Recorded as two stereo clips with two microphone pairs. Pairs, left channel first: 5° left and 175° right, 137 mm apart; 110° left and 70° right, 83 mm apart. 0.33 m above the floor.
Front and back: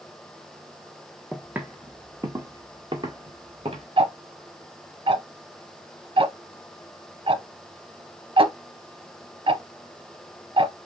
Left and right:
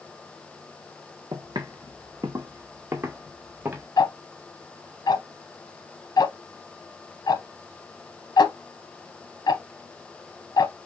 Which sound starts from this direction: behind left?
Ticking, at 4.0 s.